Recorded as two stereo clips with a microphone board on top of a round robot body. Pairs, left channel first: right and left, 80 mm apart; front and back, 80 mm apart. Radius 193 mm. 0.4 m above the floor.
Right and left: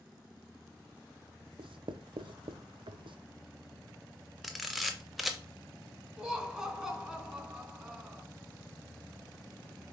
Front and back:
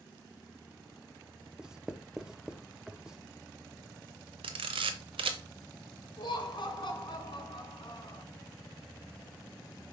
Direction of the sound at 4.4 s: Straight behind.